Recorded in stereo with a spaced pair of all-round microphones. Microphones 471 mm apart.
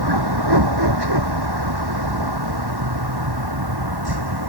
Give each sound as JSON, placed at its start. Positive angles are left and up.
{"t": 0.0, "sound": "a vehicle", "side_deg": -55}